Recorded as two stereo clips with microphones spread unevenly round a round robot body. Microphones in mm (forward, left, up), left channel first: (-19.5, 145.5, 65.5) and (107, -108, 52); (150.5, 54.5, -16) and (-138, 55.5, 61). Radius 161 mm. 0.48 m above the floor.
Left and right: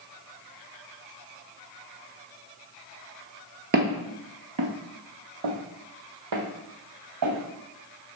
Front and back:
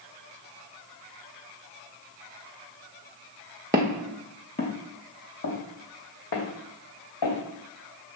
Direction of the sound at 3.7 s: 120° right.